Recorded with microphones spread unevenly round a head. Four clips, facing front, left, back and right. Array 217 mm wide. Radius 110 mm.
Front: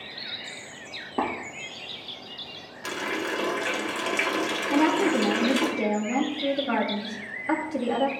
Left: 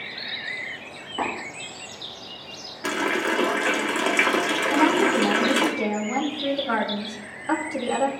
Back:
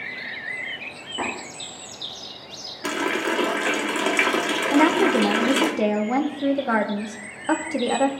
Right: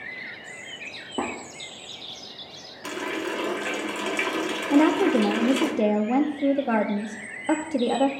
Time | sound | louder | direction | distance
1.2 | tapping | left 1 dB, front 2 dB | 55° right | 3.5 m
2.8 | a running tap | left 5 dB, back 6 dB | 135° left | 1.2 m
4.7 | a woman speaking | right 2 dB, back 4 dB | 130° right | 0.9 m